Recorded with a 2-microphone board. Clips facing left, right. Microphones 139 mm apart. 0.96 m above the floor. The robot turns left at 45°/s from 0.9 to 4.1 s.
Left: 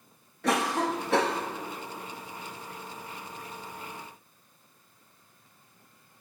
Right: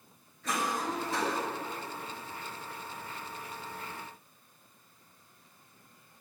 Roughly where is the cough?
Left.